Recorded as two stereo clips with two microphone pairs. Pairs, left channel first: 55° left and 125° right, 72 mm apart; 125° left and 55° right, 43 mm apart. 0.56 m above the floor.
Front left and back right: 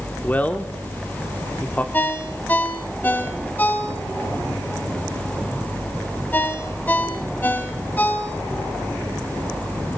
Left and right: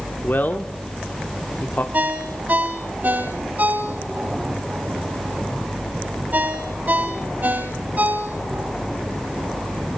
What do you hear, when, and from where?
0.2 s a man speaking: 115° left, 1.1 m
1.9 s a ringtone: 10° right, 1.5 m